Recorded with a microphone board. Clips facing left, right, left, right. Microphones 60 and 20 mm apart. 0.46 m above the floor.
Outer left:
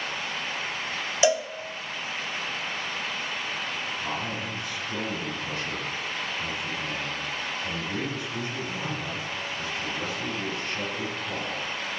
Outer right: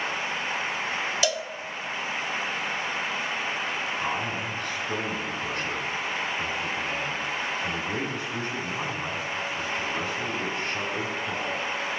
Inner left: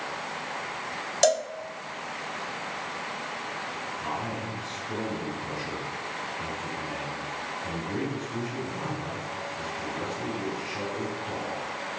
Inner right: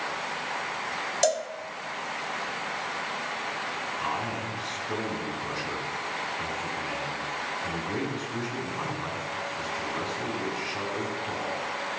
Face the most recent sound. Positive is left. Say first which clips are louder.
# outer right 2 dB, inner right 1 dB
turn(degrees=-60)  # may be behind; listen again after turning